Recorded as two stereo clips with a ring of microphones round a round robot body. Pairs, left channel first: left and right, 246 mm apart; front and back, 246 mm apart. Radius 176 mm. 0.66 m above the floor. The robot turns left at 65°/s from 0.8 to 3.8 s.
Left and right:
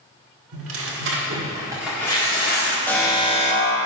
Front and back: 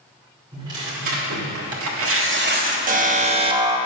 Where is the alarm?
170° left, 1.0 m; by 3.8 s 110° left, 1.0 m.